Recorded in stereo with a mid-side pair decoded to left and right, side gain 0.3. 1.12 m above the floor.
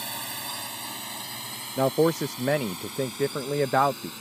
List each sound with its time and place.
0.0 s a drone: 15° right; by 4.2 s 10° left
1.8 s a man speaking: straight ahead